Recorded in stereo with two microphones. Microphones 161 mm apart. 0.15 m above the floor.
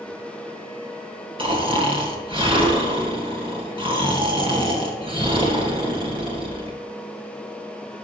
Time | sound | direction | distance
1.4 | snoring | 35° right (ahead or behind) | 2.5 m